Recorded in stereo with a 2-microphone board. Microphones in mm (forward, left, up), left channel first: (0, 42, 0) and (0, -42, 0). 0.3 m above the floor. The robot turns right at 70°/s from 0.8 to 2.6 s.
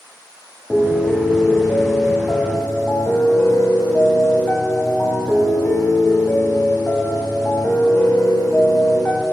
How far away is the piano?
About 1.4 m.